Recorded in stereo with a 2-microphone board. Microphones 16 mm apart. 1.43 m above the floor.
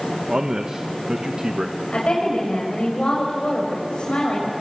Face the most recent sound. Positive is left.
turn(degrees=80)